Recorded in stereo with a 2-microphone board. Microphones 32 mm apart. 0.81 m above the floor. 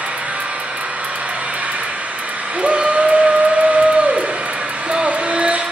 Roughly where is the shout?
Right.